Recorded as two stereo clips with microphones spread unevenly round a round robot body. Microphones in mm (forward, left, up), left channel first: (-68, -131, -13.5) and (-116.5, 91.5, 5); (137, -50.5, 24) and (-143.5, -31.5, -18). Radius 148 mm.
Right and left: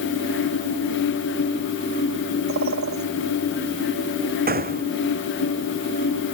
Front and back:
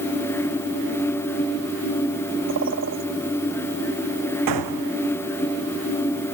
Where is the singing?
No singing in this recording.